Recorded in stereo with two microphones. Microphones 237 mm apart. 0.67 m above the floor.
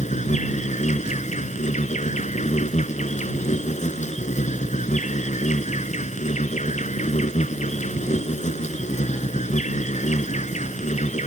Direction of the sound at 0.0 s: 30° left (ahead or behind).